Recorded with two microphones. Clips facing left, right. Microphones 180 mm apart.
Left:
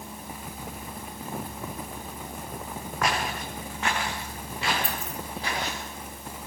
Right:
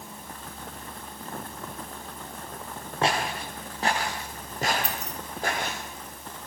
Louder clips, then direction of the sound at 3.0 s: Right 2 dB; 30° right (ahead or behind).